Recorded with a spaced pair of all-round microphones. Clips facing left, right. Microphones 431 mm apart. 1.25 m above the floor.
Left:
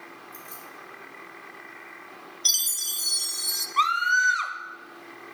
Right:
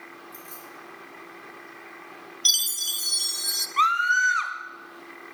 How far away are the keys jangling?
About 3 m.